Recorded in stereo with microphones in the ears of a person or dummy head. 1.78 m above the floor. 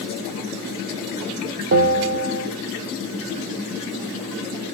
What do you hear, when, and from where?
1.7 s a bell: 45° right (ahead or behind), 0.7 m